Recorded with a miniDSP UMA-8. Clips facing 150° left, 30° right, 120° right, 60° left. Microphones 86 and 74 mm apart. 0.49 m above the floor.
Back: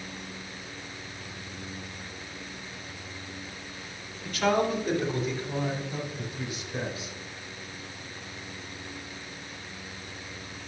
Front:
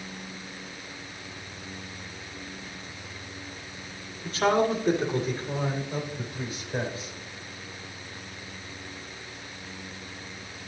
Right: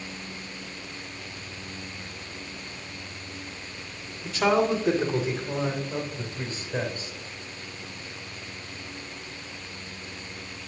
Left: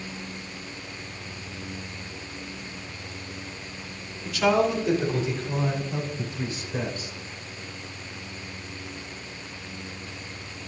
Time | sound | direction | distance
4.2 | a man speaking | 75° right | 1.7 m